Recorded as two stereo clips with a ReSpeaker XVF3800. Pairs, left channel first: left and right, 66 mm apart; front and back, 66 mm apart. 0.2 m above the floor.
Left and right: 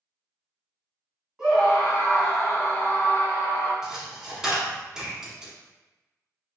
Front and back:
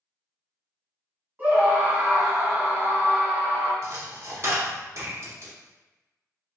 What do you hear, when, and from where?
1.4 s a scream: 160° right, 1.3 m; by 3.7 s 130° left, 1.8 m
3.8 s a dropped coin: 165° right, 0.8 m